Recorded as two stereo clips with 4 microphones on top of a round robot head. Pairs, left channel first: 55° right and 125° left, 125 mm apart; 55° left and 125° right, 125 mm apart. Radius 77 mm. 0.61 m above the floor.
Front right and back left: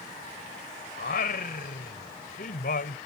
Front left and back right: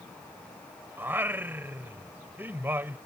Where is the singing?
50° right.